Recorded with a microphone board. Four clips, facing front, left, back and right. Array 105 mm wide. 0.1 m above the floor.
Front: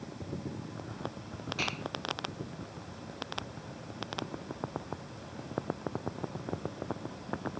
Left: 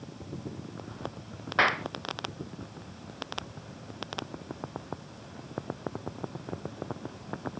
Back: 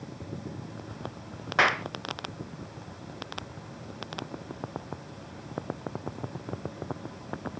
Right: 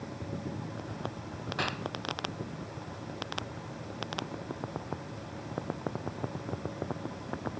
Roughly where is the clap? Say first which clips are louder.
Left 10 dB, back 15 dB; behind left.